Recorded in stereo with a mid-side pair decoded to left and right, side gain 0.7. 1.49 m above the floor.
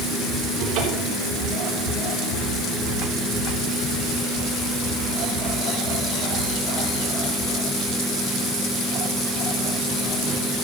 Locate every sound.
0.6 s a cupboard door: 65° right, 3.5 m